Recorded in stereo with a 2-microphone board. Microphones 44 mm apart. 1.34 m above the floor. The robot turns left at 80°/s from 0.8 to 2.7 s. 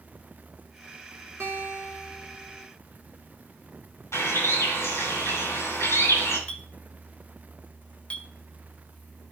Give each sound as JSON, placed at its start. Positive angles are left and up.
{"t": 1.4, "sound": "a guitar", "azimuth_deg": -125, "distance_m": 2.5}
{"t": 4.1, "sound": "a bird", "side_deg": 80, "distance_m": 6.0}
{"t": 6.5, "sound": "a clink", "side_deg": 25, "distance_m": 0.8}